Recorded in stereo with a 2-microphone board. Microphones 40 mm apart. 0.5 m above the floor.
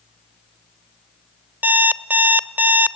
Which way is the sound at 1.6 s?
45° right (ahead or behind).